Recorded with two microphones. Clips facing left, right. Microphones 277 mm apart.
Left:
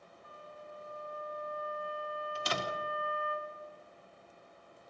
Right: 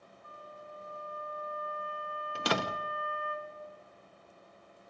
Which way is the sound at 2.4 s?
80° right.